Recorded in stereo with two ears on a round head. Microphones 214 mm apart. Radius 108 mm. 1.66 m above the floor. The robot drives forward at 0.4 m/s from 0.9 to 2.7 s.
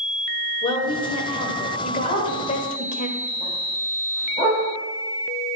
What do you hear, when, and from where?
0.6 s a woman speaking: 20° left (ahead or behind), 1.8 m; by 3.1 s 30° left (ahead or behind), 1.2 m
2.1 s a dog barking: 25° right (ahead or behind), 4 m; by 4.6 s 20° right (ahead or behind), 4 m